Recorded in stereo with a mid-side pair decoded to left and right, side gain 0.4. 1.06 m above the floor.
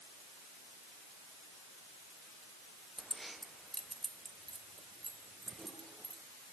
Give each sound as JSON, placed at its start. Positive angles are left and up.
{"t": 3.0, "sound": "keys jangling", "azimuth_deg": -10, "distance_m": 0.6}